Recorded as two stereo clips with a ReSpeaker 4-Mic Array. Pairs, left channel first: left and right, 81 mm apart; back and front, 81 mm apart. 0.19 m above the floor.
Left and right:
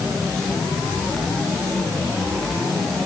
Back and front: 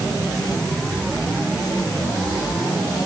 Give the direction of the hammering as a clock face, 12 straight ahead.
No hammering in this recording.